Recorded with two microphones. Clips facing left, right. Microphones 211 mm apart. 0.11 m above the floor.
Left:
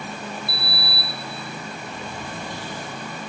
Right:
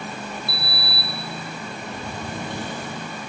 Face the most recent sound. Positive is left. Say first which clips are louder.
# even
turn(degrees=-65)  # may be behind; listen again after turning